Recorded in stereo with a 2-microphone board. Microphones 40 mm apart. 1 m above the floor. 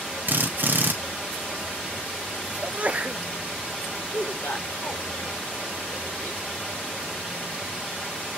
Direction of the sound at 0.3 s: 55° right (ahead or behind).